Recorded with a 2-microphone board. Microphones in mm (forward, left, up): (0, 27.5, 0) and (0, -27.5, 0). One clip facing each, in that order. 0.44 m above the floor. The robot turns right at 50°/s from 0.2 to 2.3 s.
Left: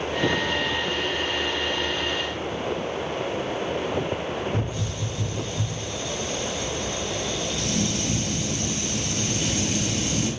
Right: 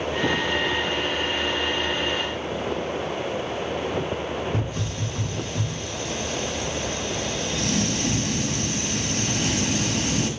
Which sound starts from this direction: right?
A hiss, at 4.5 s.